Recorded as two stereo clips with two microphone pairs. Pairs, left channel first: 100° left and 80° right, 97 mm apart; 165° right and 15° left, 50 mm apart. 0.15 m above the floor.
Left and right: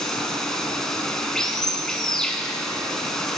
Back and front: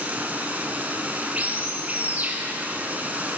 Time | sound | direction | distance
0.0 | running water | 25° left | 1.1 m